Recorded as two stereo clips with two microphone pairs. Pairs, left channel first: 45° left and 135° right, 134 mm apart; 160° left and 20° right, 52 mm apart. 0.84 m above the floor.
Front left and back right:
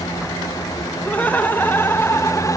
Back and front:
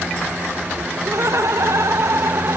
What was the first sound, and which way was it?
Laughter, 35° right.